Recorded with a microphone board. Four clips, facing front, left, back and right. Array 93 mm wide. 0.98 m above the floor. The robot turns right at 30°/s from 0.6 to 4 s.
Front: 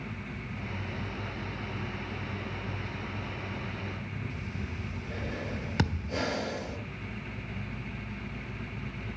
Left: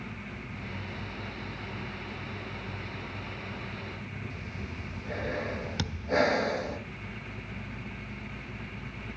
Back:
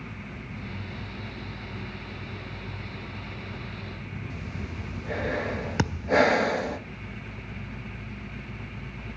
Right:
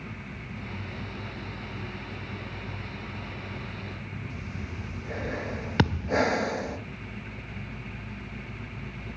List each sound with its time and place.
4.3 s breathing: 175° right, 1.2 m
5.8 s a thud: 110° right, 0.5 m